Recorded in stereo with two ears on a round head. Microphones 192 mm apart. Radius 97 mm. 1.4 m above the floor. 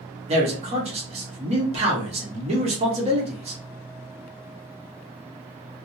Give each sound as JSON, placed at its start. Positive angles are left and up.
{"t": 0.3, "sound": "a man speaking", "side_deg": -30, "distance_m": 1.0}